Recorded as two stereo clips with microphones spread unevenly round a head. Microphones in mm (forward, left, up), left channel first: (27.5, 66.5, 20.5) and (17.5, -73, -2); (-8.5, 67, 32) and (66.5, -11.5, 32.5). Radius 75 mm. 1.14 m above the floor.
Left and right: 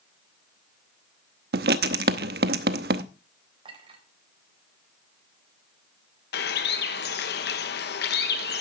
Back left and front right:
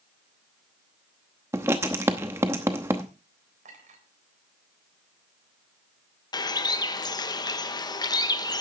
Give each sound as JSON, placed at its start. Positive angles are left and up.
{"t": 1.5, "sound": "writing", "azimuth_deg": -120, "distance_m": 0.8}
{"t": 3.6, "sound": "a clink", "azimuth_deg": -40, "distance_m": 4.0}
{"t": 6.3, "sound": "a bird", "azimuth_deg": 85, "distance_m": 1.2}